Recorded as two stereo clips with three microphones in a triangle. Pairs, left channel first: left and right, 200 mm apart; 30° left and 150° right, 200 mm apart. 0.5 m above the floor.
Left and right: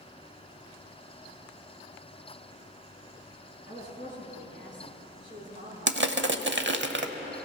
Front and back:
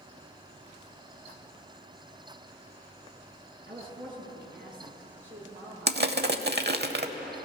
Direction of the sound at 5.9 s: 115° right.